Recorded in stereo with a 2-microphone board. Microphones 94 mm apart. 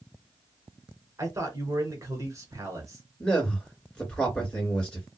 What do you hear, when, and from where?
1.2 s a man speaking: 35° right (ahead or behind), 1.5 m
3.2 s a man speaking: 10° left (ahead or behind), 2 m